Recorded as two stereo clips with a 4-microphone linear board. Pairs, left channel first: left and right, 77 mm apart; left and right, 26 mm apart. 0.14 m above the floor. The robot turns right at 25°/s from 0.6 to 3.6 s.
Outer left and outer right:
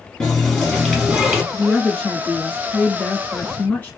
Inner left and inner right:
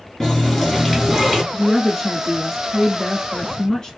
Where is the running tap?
Centre (ahead or behind), 1.3 m; by 1.4 s 15° right (ahead or behind), 1.3 m.